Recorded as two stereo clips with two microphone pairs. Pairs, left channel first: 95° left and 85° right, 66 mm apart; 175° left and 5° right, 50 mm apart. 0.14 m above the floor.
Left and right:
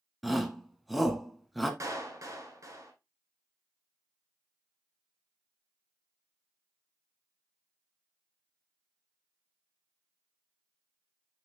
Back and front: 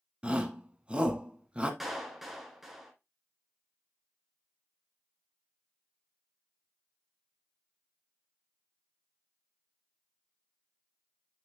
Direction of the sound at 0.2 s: 5° left.